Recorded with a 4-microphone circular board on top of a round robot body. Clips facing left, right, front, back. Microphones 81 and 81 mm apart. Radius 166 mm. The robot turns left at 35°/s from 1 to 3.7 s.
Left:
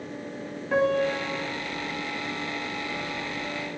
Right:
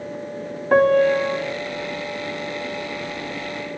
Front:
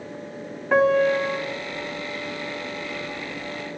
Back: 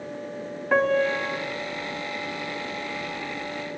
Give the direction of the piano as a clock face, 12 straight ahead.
3 o'clock.